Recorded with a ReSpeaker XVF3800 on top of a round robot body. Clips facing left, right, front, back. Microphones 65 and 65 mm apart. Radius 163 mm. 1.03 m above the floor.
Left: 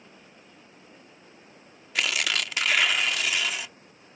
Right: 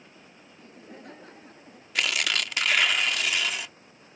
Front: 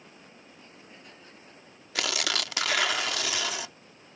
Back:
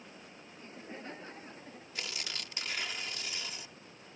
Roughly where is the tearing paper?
Ahead.